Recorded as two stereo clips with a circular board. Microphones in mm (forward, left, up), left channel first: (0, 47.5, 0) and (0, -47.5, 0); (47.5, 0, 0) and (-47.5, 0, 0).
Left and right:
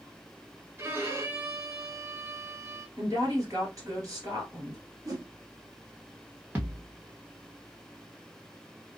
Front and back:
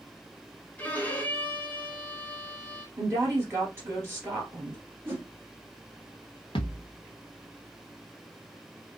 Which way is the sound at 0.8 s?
55° right.